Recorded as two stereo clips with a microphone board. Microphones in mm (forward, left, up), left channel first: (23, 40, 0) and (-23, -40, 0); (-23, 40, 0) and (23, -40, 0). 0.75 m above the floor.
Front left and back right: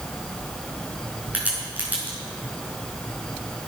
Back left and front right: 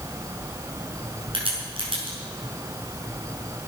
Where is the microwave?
No microwave in this recording.